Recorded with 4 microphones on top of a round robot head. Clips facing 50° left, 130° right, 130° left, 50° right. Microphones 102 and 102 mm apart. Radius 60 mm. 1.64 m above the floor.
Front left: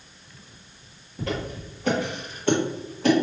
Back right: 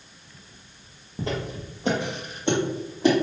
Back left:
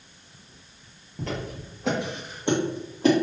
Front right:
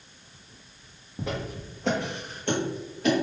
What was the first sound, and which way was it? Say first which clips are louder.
Footsteps: even, even; 110° right.